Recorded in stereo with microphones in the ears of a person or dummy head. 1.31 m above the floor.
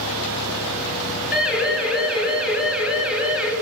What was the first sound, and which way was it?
A siren, 5° right (ahead or behind).